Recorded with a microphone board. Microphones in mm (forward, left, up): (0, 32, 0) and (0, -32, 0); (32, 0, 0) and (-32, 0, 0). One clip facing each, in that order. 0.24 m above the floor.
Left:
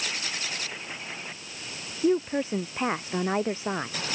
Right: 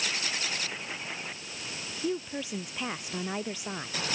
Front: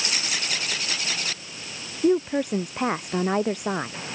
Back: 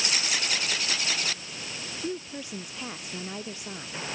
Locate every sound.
2.0 s a woman speaking: 35° left; by 4.0 s 30° left